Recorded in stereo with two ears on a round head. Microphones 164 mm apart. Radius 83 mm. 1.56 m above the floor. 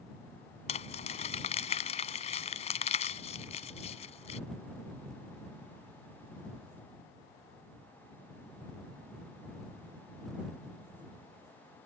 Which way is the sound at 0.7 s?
35° left (ahead or behind).